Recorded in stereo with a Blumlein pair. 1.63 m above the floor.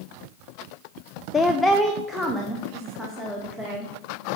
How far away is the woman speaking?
About 0.5 m.